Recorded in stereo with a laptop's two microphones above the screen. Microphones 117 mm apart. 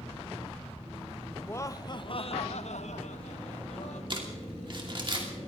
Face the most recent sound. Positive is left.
turn(degrees=-45)  # may be behind; listen again after turning